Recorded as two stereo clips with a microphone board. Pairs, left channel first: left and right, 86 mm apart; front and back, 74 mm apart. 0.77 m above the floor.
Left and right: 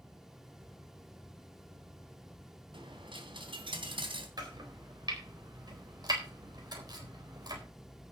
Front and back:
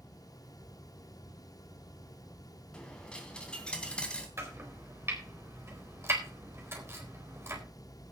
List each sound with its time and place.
2.7 s a dropped coin: 75° right, 3 m
4.4 s chopping: 125° right, 4 m